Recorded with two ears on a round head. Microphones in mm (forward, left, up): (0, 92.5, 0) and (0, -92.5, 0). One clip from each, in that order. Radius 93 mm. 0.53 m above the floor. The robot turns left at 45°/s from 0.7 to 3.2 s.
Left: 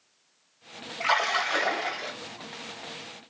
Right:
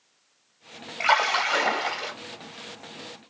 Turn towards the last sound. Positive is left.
turn(degrees=-165)